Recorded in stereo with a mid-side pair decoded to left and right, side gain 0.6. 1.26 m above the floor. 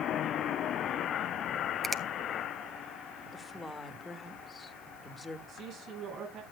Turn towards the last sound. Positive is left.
turn(degrees=-60)